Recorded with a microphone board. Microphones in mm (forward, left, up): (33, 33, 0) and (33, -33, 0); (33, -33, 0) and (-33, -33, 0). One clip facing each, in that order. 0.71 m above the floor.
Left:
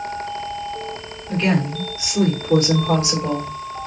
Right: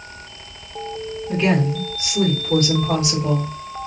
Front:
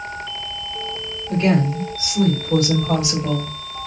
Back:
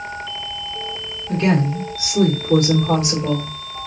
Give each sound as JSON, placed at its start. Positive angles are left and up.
{"t": 1.3, "sound": "a woman speaking", "azimuth_deg": -175, "distance_m": 1.7}